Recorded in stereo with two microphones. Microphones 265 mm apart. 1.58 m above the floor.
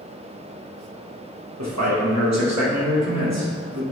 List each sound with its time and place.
1.6 s a man speaking: 80° right, 2 m